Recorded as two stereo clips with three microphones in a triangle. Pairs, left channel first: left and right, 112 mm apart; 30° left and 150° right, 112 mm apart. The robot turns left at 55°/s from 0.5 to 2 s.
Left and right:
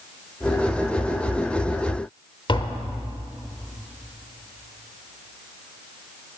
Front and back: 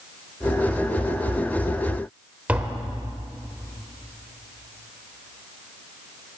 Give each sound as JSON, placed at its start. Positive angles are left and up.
{"t": 2.5, "sound": "tapping", "azimuth_deg": 135, "distance_m": 1.0}